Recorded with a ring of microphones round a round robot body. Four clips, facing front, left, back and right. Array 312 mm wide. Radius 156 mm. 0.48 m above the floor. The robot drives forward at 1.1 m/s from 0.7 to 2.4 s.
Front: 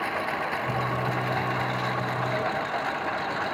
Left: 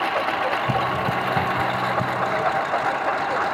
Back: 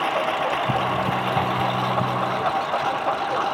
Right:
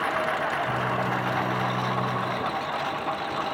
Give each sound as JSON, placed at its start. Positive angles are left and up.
{"t": 0.0, "sound": "a lawn mower", "azimuth_deg": 125}